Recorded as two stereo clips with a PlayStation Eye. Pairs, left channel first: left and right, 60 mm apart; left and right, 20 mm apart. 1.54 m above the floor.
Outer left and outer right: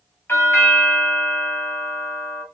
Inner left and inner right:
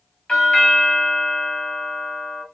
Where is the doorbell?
45° left (ahead or behind), 0.9 m.